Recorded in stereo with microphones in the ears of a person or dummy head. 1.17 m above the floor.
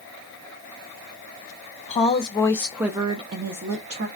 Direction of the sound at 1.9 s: 35° left (ahead or behind).